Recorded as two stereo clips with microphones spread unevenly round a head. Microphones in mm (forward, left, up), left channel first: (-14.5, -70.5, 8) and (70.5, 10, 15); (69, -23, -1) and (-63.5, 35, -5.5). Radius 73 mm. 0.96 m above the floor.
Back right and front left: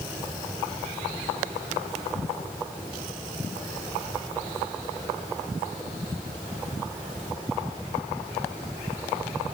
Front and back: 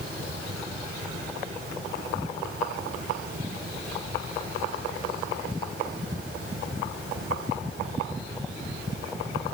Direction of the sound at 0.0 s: 140° left.